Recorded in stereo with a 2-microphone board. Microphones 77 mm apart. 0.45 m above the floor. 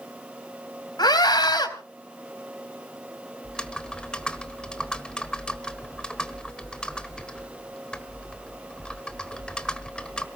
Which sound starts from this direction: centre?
Typing on a keyboard, at 3.4 s.